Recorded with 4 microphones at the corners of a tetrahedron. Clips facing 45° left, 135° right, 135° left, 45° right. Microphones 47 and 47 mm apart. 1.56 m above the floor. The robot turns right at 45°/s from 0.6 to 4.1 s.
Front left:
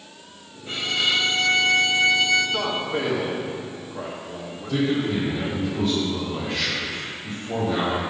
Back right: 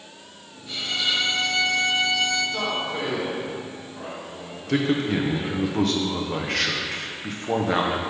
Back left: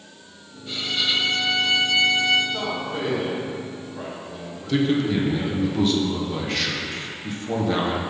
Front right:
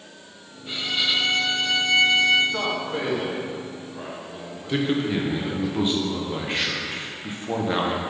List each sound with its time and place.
0.7 s a violin: 25° left, 0.8 m; by 2.4 s 100° left, 0.8 m
2.5 s a man speaking: 25° right, 1.4 m; by 5.7 s 45° left, 1.4 m
4.7 s a man speaking: 110° right, 1.0 m